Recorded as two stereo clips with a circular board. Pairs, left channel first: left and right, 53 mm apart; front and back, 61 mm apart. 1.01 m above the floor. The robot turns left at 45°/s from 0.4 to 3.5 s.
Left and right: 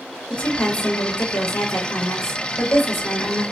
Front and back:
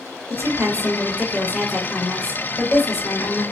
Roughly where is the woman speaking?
Behind left.